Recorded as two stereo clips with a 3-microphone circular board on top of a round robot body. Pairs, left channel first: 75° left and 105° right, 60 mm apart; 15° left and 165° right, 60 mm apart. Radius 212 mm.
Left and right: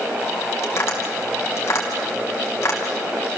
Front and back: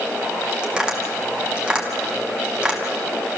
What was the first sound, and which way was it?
Tapping, 120° left.